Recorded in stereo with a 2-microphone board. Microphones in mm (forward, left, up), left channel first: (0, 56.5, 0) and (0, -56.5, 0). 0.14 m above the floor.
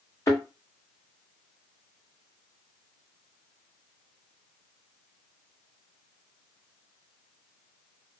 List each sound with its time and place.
0.3 s a thud: 30° left (ahead or behind), 1.4 m